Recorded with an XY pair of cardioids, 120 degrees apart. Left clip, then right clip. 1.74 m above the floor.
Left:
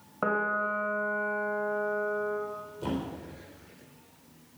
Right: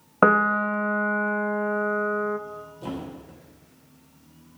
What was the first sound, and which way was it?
A piano, 70° right.